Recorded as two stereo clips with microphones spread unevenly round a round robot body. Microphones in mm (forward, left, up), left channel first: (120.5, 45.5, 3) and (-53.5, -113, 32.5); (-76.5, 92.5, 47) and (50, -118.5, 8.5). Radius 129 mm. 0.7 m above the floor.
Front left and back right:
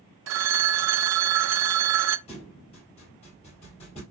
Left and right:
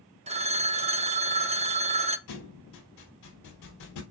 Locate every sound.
0.3 s a phone ringing: 120° right, 0.6 m
2.3 s a thud: 110° left, 3.5 m